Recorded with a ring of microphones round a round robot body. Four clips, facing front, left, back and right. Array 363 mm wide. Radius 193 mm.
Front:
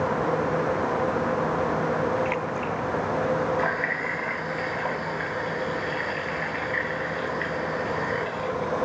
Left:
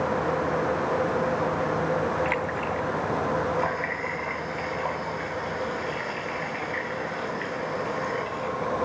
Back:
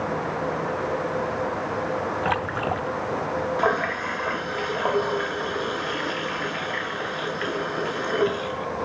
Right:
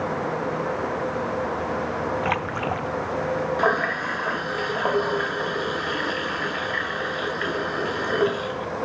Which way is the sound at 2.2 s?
140° right.